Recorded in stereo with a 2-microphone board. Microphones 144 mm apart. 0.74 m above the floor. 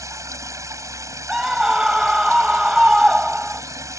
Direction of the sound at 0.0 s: 20° right (ahead or behind).